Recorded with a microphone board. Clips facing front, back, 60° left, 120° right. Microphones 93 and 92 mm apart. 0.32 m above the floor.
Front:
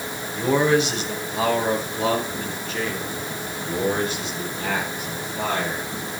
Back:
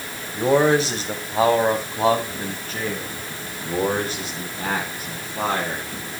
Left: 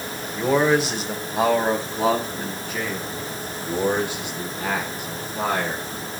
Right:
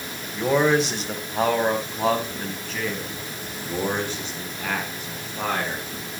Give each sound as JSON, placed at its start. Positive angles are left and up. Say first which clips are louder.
{"t": 0.3, "sound": "a man speaking", "louder": "back 2 dB, left 1 dB", "azimuth_deg": 150, "distance_m": 1.8}